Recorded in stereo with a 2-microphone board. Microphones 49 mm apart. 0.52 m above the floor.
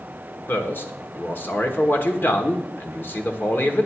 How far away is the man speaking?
About 1.4 m.